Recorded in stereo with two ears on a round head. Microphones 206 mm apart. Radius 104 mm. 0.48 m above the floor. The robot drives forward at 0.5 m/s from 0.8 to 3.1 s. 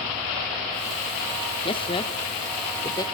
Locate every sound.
1.6 s a man speaking: 25° left (ahead or behind), 0.8 m; by 3.0 s 15° left (ahead or behind), 1.0 m